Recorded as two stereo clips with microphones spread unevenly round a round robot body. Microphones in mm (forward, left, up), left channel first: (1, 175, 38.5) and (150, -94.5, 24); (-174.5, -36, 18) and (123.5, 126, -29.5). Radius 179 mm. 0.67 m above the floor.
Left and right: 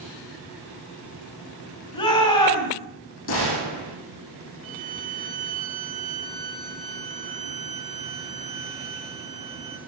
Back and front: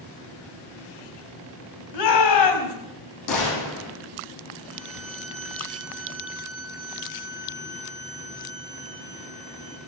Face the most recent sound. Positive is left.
turn(degrees=-15)